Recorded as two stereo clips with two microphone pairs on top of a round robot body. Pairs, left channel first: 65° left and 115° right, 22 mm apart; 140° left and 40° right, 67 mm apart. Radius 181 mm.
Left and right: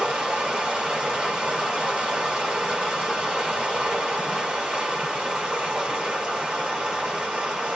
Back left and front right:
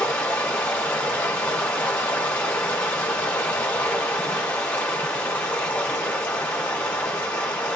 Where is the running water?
145° right, 0.8 m.